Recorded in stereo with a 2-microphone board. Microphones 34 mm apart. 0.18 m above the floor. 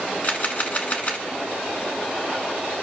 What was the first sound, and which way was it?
A camera shutter, 45° left (ahead or behind).